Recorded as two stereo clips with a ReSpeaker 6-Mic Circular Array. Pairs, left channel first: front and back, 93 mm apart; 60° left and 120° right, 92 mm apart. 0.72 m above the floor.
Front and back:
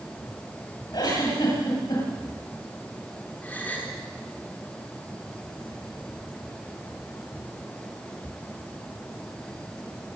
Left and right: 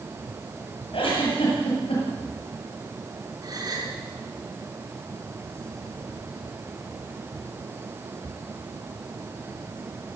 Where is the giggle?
40° left, 9.5 m.